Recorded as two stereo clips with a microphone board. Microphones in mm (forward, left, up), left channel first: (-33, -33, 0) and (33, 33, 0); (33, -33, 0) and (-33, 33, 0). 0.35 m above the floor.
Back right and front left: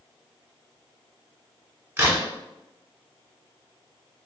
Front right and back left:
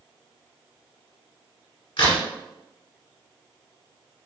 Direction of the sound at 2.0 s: 20° right.